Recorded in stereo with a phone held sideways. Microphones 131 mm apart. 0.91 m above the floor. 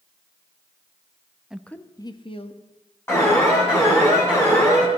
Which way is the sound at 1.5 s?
5° right (ahead or behind).